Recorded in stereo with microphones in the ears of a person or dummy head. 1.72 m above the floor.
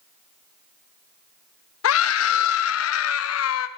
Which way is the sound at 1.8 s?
80° left.